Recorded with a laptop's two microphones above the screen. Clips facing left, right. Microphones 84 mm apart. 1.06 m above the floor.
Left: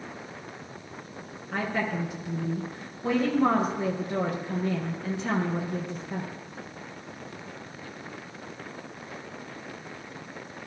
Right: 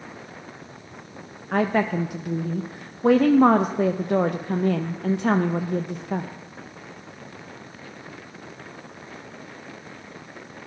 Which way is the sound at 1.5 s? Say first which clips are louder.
Right 7 dB; 65° right (ahead or behind).